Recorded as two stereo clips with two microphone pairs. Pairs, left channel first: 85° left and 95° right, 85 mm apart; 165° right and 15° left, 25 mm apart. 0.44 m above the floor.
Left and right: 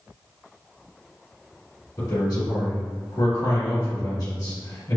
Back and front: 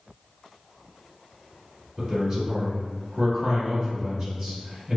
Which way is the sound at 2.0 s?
85° left.